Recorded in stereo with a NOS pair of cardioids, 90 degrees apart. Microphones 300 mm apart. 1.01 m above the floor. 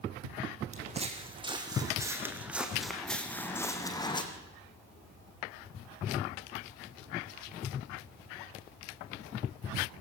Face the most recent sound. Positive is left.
turn(degrees=15)